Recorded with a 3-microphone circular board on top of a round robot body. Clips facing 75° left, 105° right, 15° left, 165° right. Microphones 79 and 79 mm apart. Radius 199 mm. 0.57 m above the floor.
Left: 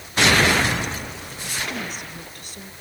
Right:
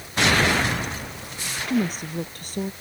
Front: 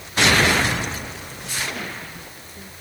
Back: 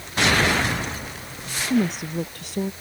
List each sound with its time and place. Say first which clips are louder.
1.7 s a woman speaking: right 7 dB, back 10 dB; 150° right